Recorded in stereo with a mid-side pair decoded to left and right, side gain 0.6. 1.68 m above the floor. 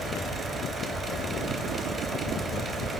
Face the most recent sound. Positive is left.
turn(degrees=-40)